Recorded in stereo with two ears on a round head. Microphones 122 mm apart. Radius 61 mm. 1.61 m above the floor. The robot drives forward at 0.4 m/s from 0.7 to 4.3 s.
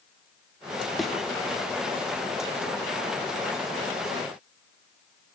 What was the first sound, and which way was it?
A thud, centre (ahead or behind).